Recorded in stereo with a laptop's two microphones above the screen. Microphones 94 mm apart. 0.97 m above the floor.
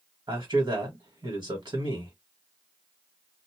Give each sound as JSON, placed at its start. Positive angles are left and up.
{"t": 0.3, "sound": "a man speaking", "side_deg": -45, "distance_m": 1.5}